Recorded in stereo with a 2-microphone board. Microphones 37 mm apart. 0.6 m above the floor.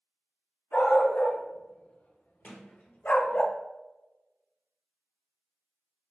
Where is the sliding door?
55° left (ahead or behind), 1.2 m.